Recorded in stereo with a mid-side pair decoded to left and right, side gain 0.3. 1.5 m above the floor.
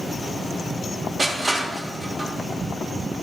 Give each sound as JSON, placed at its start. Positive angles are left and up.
{"t": 1.2, "sound": "crushing", "azimuth_deg": -45, "distance_m": 3.5}